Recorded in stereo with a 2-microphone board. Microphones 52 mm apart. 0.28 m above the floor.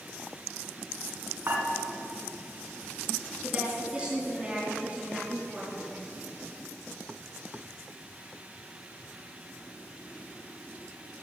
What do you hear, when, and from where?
1.5 s dishes clattering: 50° right (ahead or behind), 2 m
3.4 s a woman speaking: 25° right (ahead or behind), 4.5 m